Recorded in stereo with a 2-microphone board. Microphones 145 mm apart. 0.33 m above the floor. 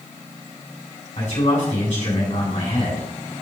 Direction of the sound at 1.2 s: 65° left (ahead or behind).